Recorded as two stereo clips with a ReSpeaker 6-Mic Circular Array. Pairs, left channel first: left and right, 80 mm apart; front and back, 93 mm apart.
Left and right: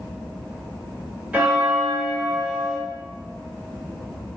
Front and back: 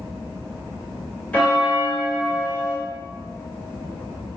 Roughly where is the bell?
Ahead right.